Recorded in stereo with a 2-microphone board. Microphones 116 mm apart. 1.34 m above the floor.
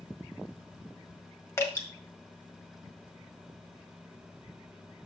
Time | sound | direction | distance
1.6 | dripping | 25° left (ahead or behind) | 1.7 m